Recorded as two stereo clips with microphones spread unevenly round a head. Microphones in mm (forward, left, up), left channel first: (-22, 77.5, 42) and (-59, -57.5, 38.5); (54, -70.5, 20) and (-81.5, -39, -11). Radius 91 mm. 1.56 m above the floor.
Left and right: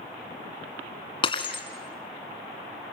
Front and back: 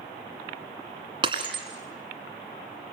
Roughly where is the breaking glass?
Left.